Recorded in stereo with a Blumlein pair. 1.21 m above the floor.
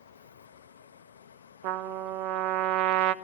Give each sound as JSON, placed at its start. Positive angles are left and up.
{"t": 0.0, "sound": "a fan", "azimuth_deg": 60, "distance_m": 0.8}
{"t": 1.6, "sound": "a trumpet", "azimuth_deg": -45, "distance_m": 0.9}